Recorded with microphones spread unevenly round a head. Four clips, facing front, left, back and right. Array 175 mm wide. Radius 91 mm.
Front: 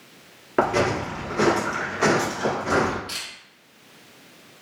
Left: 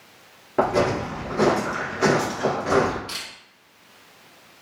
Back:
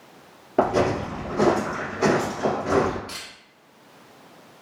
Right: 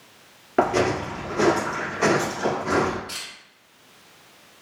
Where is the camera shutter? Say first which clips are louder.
Left 2 dB, front 1 dB; 125° left, 1.2 m.